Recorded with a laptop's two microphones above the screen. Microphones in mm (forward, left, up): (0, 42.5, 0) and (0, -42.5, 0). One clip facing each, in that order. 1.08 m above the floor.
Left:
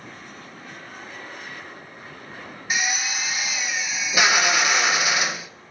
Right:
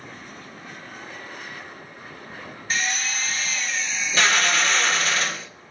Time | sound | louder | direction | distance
2.7 | a drill | left 1 dB | 10° left (ahead or behind) | 0.7 m